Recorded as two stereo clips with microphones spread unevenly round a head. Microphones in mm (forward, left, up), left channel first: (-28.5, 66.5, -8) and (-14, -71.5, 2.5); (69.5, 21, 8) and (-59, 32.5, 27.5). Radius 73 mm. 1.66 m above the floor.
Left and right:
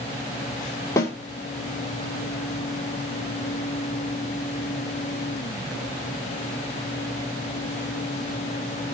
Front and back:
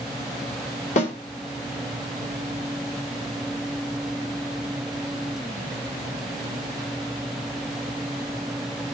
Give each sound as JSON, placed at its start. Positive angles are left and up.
{"t": 1.0, "sound": "a snare drum", "azimuth_deg": 25, "distance_m": 3.0}